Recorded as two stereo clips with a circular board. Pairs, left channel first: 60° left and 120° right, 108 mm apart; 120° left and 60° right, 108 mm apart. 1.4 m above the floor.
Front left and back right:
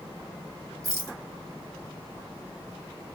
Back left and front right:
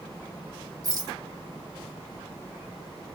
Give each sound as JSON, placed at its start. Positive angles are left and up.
{"t": 0.8, "sound": "a rattle", "azimuth_deg": -85, "distance_m": 1.3}